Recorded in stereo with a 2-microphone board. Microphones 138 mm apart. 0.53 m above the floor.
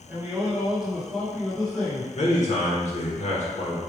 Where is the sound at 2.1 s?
55° left (ahead or behind), 1.1 m.